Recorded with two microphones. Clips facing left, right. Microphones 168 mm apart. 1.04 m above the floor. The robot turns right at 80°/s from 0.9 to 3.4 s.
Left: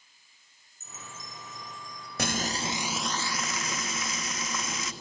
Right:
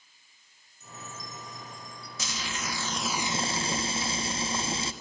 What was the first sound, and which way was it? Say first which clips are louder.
A chime: right 3 dB; 130° left.